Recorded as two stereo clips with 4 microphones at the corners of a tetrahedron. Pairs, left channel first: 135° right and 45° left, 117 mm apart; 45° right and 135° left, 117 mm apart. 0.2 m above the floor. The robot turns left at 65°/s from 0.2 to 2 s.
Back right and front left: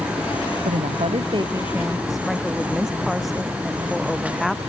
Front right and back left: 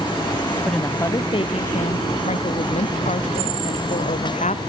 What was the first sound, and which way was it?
A woman speaking, 45° left.